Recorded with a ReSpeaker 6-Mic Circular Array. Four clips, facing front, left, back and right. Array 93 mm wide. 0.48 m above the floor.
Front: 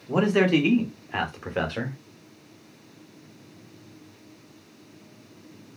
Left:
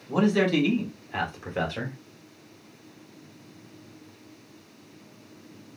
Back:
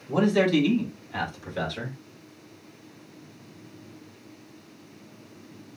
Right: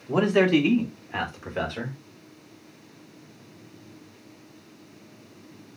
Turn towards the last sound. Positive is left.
turn(degrees=15)